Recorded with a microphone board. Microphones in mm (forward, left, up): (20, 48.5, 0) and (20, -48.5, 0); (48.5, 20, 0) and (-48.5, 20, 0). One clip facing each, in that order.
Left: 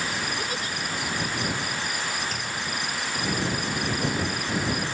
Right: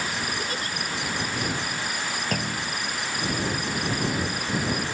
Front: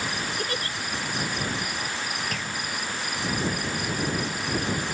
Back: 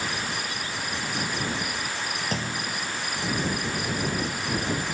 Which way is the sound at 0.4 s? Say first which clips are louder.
Even, front 3 dB; straight ahead.